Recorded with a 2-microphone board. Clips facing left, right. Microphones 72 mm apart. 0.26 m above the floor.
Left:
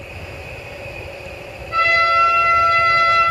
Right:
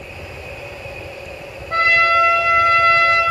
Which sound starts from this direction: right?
A trumpet, at 1.7 s.